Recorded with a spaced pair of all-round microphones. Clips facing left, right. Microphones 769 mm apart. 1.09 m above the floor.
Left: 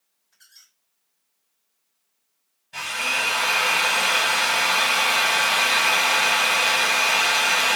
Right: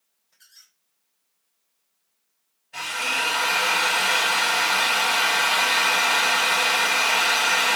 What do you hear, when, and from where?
0.3 s a squeak: 15° right (ahead or behind), 2 m
2.7 s a drill: 50° left (ahead or behind), 1.5 m